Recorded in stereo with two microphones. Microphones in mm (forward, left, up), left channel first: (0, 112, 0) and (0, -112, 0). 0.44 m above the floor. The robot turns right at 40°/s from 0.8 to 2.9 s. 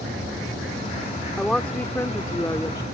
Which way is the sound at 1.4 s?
Centre (ahead or behind).